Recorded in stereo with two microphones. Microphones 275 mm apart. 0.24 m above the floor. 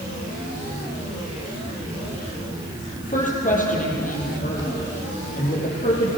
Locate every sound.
3.0 s a woman speaking: 30° left (ahead or behind), 6.5 m